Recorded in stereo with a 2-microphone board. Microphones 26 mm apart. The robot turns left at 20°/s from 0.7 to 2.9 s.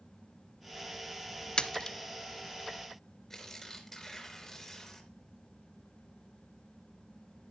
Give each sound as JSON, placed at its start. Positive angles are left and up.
{"t": 1.6, "sound": "a splash", "side_deg": 40, "distance_m": 0.7}
{"t": 3.3, "sound": "tearing paper", "side_deg": 10, "distance_m": 3.5}